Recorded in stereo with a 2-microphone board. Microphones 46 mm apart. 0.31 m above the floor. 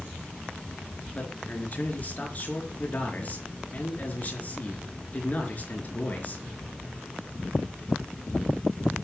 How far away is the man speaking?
About 4.5 m.